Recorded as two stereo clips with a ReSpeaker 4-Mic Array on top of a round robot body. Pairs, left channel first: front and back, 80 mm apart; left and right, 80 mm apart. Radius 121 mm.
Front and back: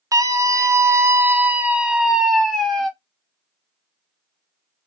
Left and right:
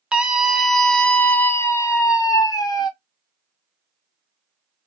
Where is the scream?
160° right, 1.1 m; by 2.9 s 85° left, 1.3 m.